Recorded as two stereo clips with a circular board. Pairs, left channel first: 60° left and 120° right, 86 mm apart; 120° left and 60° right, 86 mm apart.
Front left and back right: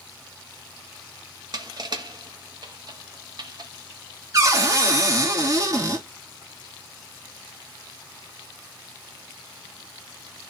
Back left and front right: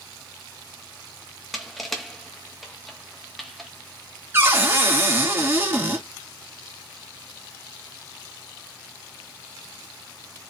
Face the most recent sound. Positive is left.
turn(degrees=-105)